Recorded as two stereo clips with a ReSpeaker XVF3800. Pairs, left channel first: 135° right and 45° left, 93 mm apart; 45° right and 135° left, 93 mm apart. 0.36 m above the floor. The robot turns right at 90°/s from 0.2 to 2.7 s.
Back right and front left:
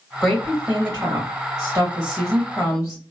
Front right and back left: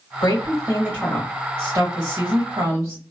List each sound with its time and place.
0.2 s a woman speaking: 45° right, 1.8 m; by 3.0 s straight behind, 1.8 m